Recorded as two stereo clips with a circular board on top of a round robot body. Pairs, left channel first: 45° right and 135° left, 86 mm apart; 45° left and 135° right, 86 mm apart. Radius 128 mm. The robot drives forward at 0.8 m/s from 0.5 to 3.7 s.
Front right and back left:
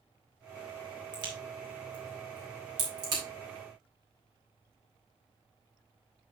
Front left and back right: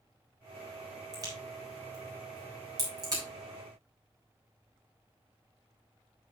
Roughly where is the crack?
Behind.